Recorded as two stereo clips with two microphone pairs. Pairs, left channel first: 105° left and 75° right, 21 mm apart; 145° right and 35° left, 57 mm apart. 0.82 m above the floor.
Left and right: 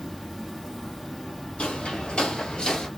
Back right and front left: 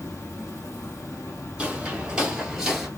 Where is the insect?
165° right, 0.9 m.